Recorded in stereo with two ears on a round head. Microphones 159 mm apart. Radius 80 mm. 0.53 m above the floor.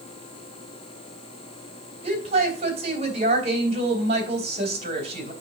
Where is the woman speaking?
40° right (ahead or behind), 3 m.